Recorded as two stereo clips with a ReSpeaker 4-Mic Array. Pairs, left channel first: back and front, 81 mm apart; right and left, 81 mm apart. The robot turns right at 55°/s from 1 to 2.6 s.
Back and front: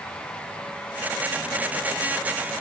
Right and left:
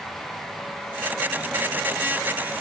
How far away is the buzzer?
No buzzer in this recording.